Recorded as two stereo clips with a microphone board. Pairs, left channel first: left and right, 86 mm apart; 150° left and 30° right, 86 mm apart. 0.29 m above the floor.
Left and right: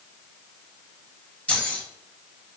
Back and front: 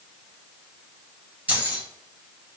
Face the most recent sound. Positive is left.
turn(degrees=25)